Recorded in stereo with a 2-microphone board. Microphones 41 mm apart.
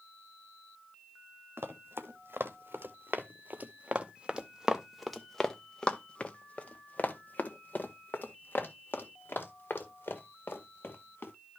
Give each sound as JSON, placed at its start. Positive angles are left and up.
{"t": 1.6, "sound": "running footsteps", "side_deg": -70, "distance_m": 1.9}